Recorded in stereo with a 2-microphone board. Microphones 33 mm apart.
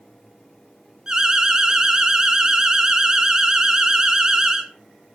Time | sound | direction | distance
1.1 | an alarm | 20° right (ahead or behind) | 1.7 m